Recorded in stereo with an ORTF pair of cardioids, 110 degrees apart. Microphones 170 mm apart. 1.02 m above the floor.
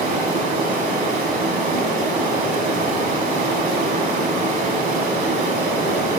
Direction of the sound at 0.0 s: 65° right.